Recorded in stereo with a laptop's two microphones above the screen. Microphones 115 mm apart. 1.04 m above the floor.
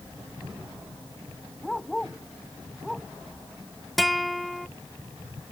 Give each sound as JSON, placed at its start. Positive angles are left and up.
{"t": 1.6, "sound": "a dog barking", "side_deg": 5}
{"t": 4.0, "sound": "a guitar", "side_deg": 0}